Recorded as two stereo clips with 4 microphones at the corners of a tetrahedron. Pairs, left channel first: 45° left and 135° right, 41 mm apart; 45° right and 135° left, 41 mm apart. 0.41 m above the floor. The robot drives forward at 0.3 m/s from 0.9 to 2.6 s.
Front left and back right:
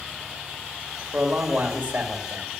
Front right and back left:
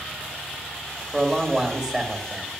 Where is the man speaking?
155° right, 1.7 m; by 2.6 s 160° right, 2.0 m.